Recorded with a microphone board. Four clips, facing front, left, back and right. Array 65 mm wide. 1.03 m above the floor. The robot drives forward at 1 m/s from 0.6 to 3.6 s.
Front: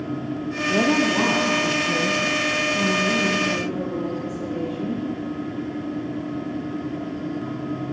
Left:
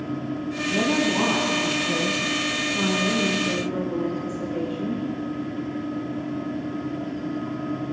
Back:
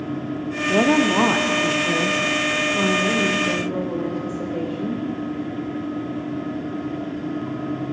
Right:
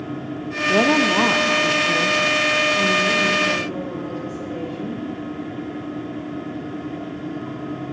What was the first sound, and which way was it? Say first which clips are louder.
A woman speaking: right 6 dB, back 3 dB; 110° right.